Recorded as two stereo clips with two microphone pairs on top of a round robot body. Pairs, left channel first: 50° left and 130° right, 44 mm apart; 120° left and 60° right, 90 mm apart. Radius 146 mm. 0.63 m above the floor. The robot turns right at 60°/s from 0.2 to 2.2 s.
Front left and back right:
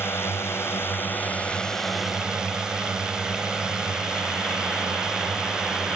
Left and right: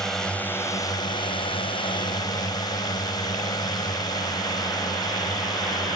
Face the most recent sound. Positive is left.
turn(degrees=155)